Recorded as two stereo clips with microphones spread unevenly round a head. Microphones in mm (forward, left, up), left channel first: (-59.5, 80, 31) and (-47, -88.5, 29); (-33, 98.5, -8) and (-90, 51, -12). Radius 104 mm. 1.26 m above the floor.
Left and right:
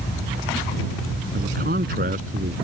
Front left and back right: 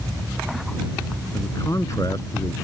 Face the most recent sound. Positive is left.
turn(degrees=-30)